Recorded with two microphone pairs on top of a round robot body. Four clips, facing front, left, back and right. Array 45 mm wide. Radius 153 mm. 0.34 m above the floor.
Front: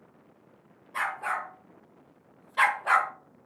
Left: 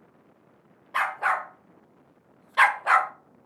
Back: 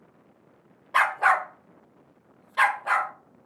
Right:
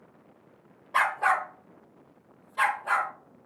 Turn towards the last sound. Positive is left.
turn(degrees=80)